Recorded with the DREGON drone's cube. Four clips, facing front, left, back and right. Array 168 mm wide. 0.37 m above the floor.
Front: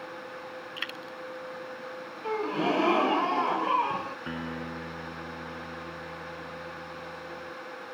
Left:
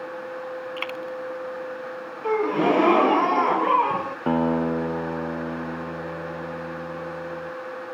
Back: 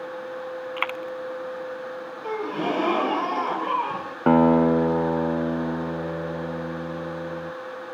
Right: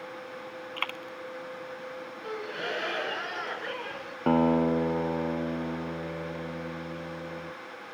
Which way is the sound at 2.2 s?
95° left.